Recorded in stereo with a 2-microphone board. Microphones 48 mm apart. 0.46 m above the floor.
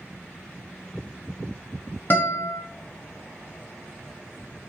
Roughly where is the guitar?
Left.